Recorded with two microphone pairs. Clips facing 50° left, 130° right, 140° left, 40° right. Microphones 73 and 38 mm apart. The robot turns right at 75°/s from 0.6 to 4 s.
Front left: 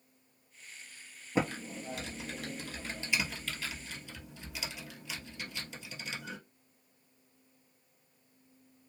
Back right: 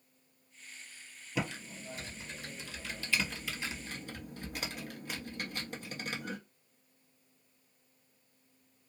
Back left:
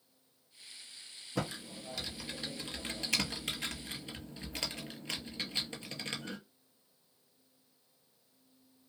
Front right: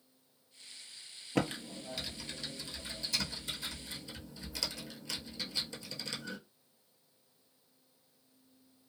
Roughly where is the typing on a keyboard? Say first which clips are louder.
Front left 5 dB, front right 4 dB; ahead.